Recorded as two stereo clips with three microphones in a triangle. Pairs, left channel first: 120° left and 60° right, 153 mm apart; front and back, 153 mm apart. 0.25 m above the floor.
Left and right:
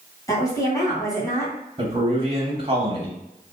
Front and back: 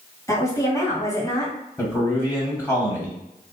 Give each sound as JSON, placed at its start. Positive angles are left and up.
{"t": 0.3, "sound": "a woman speaking", "azimuth_deg": 60, "distance_m": 2.0}
{"t": 1.8, "sound": "a man speaking", "azimuth_deg": -55, "distance_m": 1.1}